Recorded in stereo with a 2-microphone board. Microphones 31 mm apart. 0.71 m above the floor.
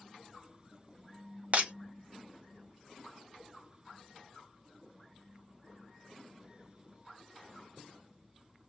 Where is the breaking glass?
50° right (ahead or behind), 0.6 m.